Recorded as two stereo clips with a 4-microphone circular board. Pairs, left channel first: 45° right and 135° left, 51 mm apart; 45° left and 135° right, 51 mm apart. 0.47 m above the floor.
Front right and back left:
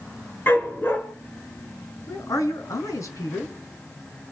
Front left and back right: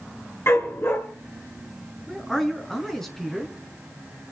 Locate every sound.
0.5 s a dog barking: 5° left, 3 m
2.1 s a man speaking: 40° right, 4 m